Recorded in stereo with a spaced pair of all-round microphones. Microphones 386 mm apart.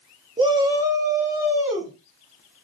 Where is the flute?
I don't hear a flute.